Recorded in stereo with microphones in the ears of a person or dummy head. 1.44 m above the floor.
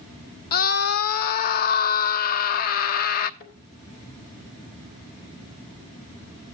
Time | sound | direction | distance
0.5 | a scream | 50° left (ahead or behind) | 0.9 m
3.4 | a thud | 50° left (ahead or behind) | 3.5 m